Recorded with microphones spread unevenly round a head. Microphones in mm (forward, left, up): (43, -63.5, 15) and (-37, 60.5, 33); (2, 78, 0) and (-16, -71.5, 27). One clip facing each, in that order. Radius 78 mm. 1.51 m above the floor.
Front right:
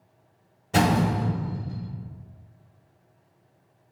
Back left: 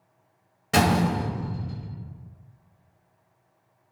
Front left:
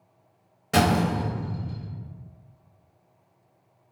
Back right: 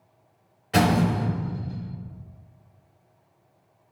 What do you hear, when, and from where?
0.7 s a door slam: 120° left, 0.9 m